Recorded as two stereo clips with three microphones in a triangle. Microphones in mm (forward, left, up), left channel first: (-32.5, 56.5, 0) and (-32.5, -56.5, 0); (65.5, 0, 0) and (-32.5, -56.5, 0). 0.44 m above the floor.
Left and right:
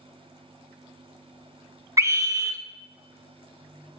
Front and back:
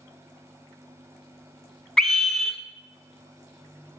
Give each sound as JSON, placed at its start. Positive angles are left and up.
{"t": 2.0, "sound": "a scream", "azimuth_deg": -55, "distance_m": 1.3}